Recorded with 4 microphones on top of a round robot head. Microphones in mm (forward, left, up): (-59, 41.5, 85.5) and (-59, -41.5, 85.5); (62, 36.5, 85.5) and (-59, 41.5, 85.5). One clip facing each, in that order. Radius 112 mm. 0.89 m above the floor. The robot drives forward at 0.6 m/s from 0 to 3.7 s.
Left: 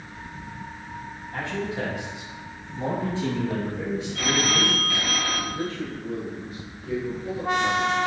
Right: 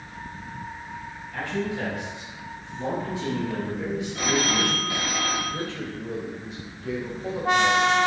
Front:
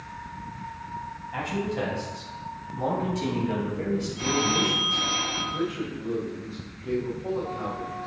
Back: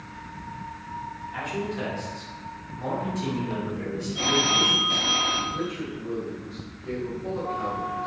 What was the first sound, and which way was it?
A man speaking, 20° left.